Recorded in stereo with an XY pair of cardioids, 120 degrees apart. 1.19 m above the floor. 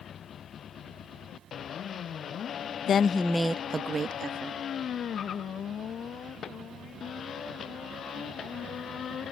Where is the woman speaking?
55° left; by 4.6 s 45° right.